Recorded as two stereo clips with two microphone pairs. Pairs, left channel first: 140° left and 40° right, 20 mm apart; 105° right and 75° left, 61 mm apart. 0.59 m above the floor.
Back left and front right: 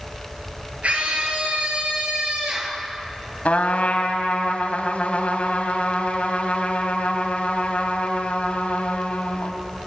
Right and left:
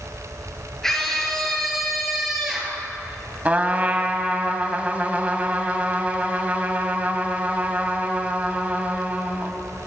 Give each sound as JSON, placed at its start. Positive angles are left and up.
{"t": 0.8, "sound": "a scream", "azimuth_deg": -20, "distance_m": 9.0}
{"t": 3.5, "sound": "a trumpet", "azimuth_deg": 145, "distance_m": 3.5}